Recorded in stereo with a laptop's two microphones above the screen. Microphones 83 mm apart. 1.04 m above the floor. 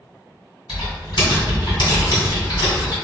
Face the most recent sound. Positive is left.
turn(degrees=70)  # may be behind; listen again after turning